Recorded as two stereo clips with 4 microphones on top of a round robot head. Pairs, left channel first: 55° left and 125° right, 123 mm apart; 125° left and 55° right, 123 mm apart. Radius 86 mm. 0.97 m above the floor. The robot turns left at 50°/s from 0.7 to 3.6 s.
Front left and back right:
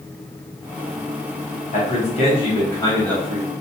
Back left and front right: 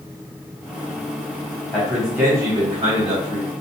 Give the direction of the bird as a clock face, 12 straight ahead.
No bird in this recording.